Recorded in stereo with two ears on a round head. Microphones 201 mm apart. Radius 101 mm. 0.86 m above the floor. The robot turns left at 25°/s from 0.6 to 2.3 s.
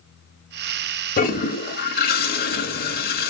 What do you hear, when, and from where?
1.2 s a toilet flushing: 40° left (ahead or behind), 0.8 m; by 3.3 s 45° left (ahead or behind), 0.8 m